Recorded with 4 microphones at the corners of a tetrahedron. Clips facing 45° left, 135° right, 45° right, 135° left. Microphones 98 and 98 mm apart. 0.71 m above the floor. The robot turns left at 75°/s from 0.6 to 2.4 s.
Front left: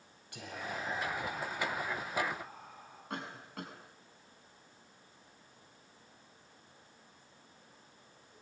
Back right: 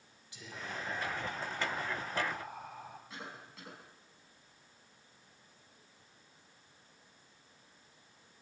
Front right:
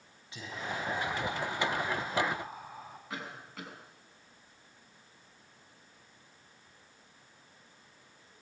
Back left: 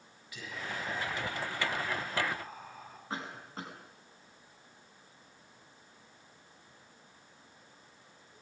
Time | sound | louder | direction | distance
0.3 | whispering | front left 3 dB, front right 2 dB | 15° left | 6 m
3.1 | a cough | front left 5 dB, back left 3 dB | 75° left | 6.5 m